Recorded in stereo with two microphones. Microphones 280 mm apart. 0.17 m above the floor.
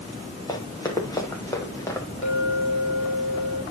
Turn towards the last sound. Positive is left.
turn(degrees=45)  # may be behind; listen again after turning